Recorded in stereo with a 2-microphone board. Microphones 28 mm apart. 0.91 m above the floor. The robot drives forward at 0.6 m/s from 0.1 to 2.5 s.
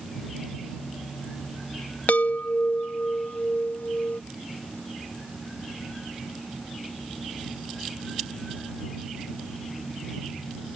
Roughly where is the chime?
Left.